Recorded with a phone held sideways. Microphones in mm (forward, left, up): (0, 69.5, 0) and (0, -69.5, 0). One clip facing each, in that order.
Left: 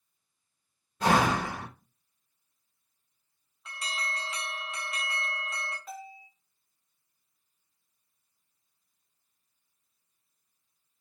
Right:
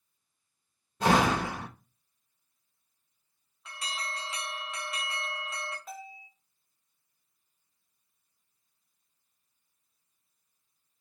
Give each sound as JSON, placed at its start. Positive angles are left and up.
{"t": 1.0, "sound": "a door slam", "side_deg": -30, "distance_m": 2.0}
{"t": 3.6, "sound": "an alarm", "side_deg": 0, "distance_m": 1.1}
{"t": 5.9, "sound": "a bell", "side_deg": -5, "distance_m": 2.0}